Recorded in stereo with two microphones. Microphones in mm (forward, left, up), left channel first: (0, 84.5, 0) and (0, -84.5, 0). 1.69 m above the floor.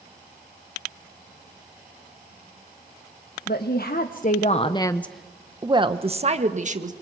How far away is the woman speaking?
About 1.5 m.